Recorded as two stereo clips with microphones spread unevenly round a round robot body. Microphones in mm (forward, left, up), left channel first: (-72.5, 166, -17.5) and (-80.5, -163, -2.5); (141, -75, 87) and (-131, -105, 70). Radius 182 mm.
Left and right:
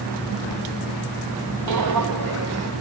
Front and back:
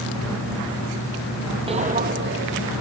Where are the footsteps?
105° right, 1.6 m; by 2.7 s 130° right, 2.5 m.